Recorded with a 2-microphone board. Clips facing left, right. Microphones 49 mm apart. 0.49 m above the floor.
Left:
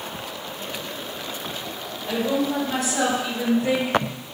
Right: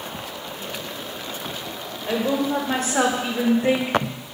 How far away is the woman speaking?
About 1.9 m.